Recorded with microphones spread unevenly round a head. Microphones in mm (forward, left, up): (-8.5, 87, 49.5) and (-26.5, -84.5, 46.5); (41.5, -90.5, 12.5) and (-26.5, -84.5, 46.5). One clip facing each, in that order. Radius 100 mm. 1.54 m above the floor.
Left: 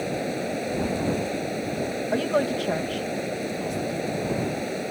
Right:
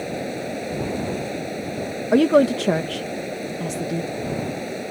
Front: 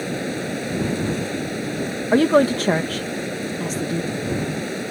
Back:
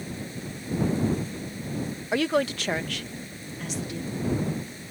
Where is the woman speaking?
55° right.